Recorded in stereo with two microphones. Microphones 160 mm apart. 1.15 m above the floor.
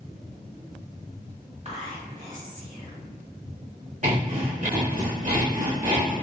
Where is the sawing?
55° right (ahead or behind), 1.3 m.